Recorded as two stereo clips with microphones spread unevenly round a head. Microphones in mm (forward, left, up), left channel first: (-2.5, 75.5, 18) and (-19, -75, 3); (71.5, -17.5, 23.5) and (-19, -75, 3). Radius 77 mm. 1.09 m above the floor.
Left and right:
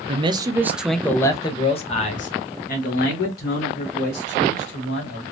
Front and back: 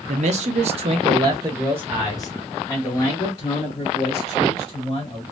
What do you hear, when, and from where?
0.1 s a man speaking: 150° right, 0.7 m; by 5.2 s 100° left, 2.5 m